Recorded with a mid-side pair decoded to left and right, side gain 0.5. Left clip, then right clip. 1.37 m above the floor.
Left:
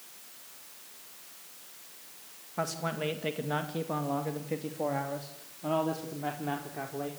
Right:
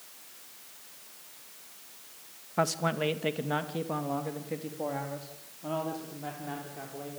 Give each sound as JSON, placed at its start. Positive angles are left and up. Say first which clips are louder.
{"t": 2.6, "sound": "a man speaking", "louder": "right 4 dB", "azimuth_deg": -40, "distance_m": 2.0}